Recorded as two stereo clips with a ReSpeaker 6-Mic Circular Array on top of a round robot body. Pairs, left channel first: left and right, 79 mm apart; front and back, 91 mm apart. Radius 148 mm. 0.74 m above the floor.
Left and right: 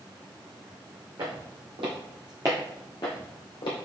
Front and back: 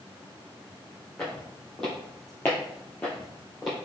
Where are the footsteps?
85° right, 2 m; by 3.8 s 90° left, 1.5 m.